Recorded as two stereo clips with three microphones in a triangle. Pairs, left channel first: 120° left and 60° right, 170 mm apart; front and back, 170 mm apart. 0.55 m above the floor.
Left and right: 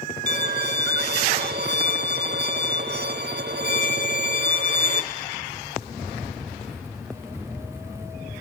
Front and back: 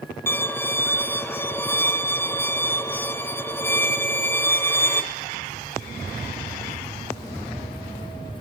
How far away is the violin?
About 0.8 m.